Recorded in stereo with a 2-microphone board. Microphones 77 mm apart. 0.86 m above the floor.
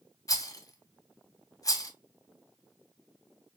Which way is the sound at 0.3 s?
45° left (ahead or behind).